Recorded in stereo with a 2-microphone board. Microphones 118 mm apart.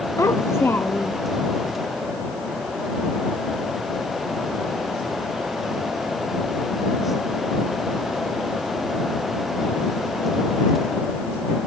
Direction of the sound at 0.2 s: 25° left (ahead or behind).